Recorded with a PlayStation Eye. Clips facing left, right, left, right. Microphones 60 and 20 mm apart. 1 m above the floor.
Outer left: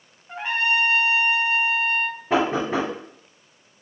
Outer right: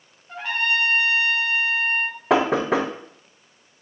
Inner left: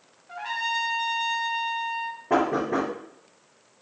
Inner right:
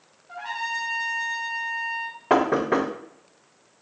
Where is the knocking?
85° right, 0.5 m.